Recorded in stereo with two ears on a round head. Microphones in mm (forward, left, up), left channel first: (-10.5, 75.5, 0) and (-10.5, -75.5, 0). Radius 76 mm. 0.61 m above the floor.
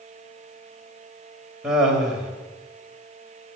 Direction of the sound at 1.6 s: 5° right (ahead or behind).